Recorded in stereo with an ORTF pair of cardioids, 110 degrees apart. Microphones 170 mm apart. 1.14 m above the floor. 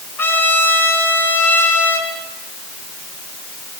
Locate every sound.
0.2 s a trumpet: 15° left, 5.5 m